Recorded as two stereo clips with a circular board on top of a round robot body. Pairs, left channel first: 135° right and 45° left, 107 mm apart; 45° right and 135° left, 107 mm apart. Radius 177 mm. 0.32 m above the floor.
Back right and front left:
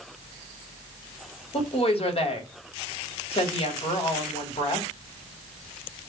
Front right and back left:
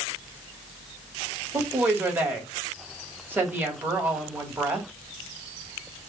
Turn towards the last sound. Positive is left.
turn(degrees=-155)